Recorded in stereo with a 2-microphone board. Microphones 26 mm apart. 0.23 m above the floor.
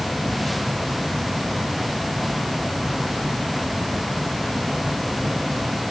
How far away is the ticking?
No ticking in this recording.